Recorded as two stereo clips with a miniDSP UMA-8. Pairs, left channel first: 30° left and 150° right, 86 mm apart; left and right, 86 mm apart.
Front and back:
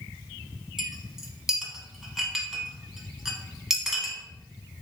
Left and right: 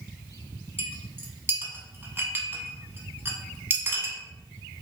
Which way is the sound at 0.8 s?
70° right.